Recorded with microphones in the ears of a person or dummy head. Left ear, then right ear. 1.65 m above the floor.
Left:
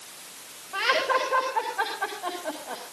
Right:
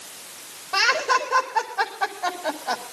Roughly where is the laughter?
Right.